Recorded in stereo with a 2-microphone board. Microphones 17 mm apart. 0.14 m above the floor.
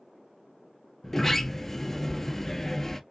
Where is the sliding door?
20° left (ahead or behind), 0.7 m.